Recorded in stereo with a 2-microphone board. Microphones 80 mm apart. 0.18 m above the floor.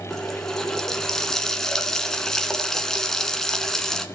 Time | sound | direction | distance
0.1 | a running tap | 5° left (ahead or behind) | 1.2 m